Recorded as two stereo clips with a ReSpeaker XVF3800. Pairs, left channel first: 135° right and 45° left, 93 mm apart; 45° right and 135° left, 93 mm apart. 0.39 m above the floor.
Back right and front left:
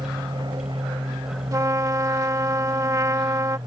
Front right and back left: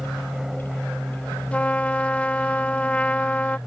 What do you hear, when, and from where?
0.0 s an aircraft: 50° left
1.5 s a trumpet: 20° left